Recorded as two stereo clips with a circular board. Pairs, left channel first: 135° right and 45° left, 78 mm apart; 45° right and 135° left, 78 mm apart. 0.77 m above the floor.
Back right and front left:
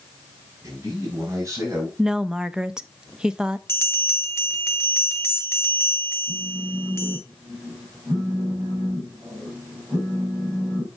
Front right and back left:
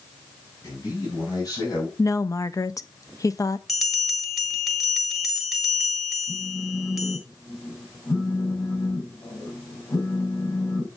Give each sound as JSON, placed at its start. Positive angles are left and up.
{"t": 0.6, "sound": "a man speaking", "azimuth_deg": 0, "distance_m": 5.0}
{"t": 2.0, "sound": "a woman speaking", "azimuth_deg": -35, "distance_m": 0.5}
{"t": 3.7, "sound": "a bell", "azimuth_deg": -130, "distance_m": 1.2}
{"t": 6.3, "sound": "a phone buzzing", "azimuth_deg": -10, "distance_m": 4.5}